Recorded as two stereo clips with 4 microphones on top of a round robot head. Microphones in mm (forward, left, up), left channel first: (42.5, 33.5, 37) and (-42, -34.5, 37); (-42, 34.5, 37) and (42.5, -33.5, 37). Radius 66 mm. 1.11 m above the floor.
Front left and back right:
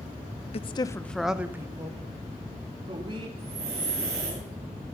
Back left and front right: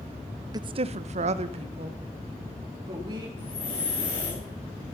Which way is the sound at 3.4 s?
175° right.